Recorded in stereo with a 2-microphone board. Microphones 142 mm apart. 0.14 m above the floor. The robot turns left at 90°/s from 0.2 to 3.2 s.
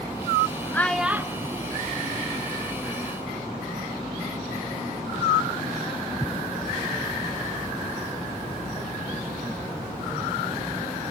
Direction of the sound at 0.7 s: 15° left (ahead or behind).